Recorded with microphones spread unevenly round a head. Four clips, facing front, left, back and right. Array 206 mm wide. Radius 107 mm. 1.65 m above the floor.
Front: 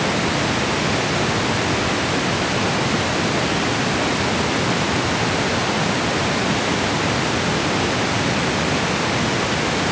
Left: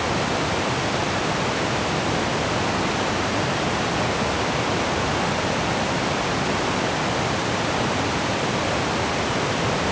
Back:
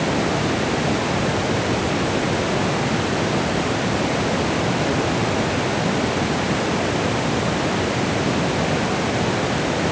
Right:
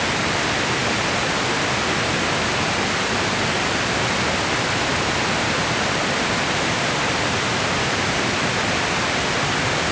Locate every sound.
Only background noise.